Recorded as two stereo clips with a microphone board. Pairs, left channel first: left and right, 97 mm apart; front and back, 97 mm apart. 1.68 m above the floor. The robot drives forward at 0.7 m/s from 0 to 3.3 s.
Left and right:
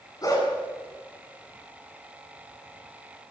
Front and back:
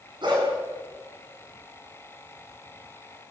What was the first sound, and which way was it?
A dog barking, 140° left.